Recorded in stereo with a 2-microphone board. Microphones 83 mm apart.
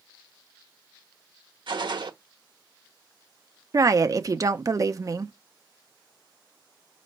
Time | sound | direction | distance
1.7 | a gunshot | 70° right (ahead or behind) | 0.8 m
3.7 | a woman speaking | 40° right (ahead or behind) | 0.6 m